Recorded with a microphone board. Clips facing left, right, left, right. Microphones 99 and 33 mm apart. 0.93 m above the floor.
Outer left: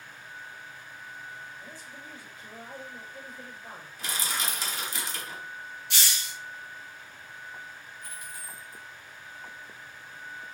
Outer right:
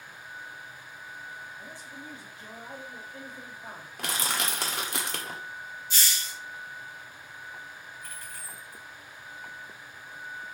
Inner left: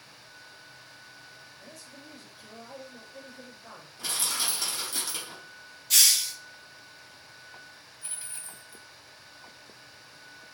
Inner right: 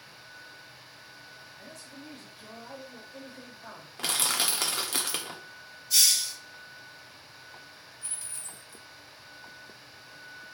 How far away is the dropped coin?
About 0.8 m.